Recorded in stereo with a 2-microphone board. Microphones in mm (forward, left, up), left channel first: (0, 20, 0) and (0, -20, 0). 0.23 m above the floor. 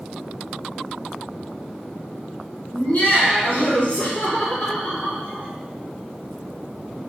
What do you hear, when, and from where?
2.7 s laughter: 45° left (ahead or behind), 1.5 m; by 5.5 s 25° left (ahead or behind), 1.8 m